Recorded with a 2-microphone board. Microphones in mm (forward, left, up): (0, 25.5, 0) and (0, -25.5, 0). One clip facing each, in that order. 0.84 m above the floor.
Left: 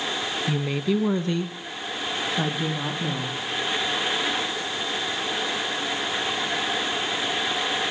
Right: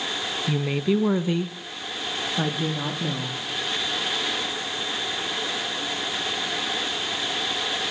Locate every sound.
0.5 s a woman speaking: 5° right (ahead or behind), 0.7 m